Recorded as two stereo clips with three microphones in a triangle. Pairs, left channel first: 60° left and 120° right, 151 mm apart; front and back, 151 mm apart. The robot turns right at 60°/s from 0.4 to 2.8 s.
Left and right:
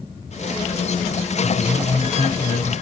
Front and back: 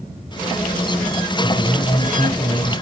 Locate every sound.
1.4 s a man speaking: 5° left, 6 m; by 2.8 s 90° left, 6 m